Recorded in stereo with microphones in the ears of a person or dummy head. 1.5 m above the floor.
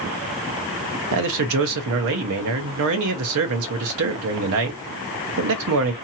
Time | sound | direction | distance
1.1 | a man speaking | 65° right (ahead or behind) | 0.7 m